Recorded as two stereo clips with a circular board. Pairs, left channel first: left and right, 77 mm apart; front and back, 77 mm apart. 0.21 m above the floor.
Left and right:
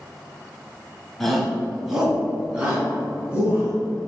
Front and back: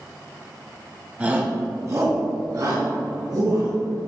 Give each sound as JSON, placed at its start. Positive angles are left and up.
{"t": 1.2, "sound": "a shout", "azimuth_deg": 170, "distance_m": 1.5}